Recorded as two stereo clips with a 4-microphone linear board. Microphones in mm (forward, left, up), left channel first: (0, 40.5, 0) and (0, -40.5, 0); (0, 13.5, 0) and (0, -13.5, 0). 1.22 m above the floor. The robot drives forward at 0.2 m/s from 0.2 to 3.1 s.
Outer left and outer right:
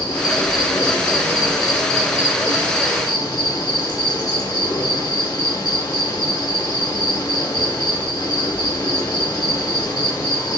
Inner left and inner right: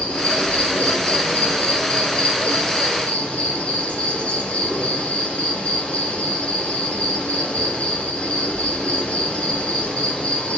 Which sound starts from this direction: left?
An insect, at 0.0 s.